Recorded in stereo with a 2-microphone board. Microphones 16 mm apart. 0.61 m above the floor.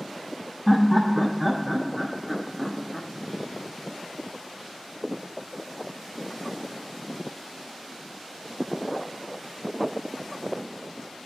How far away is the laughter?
About 0.7 m.